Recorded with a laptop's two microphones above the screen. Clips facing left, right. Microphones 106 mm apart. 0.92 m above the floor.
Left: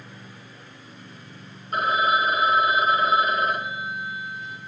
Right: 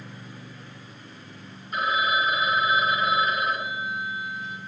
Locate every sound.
1.7 s a phone ringing: 50° left (ahead or behind), 0.9 m